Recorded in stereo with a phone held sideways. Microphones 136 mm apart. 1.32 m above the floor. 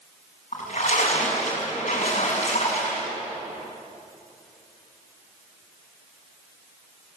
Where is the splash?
70° left (ahead or behind), 6 m.